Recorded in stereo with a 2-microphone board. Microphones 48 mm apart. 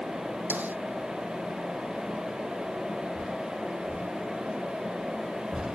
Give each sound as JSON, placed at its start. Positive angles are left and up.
{"t": 0.5, "sound": "a snare drum", "side_deg": -40}